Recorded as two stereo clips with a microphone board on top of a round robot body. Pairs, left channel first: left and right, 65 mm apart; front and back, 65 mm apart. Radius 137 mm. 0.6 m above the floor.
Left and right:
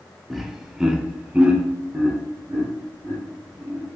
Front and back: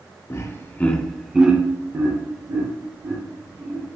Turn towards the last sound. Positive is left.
turn(degrees=-165)